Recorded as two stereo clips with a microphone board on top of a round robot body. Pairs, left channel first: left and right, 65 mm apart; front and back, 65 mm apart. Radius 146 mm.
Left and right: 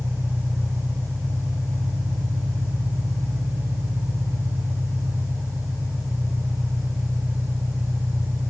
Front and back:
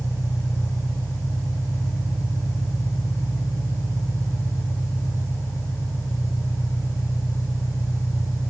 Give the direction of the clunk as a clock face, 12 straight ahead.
I don't hear a clunk.